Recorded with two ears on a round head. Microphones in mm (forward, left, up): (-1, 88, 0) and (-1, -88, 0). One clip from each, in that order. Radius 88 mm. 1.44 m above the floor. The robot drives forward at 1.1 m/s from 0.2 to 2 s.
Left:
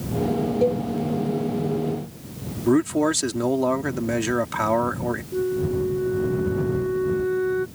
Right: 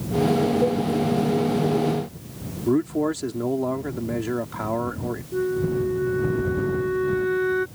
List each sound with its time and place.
0.6 s a cowbell: 80° left
2.7 s a man speaking: 60° left (ahead or behind)
5.3 s a flute: 60° right (ahead or behind)